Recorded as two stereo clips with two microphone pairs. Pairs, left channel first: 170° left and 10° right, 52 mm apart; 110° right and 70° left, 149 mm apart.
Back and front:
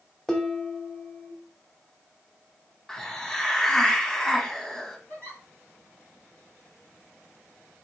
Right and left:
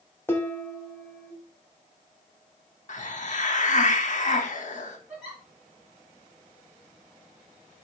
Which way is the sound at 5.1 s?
150° left.